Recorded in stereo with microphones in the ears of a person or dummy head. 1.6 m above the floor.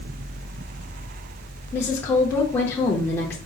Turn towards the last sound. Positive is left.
turn(degrees=15)  # may be behind; listen again after turning